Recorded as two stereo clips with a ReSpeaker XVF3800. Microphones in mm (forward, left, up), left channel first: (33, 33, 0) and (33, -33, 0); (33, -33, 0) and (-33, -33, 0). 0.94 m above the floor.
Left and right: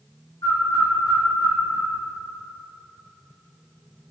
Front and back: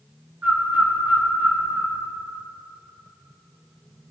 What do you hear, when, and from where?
0.4 s a bird: 110° left, 1.6 m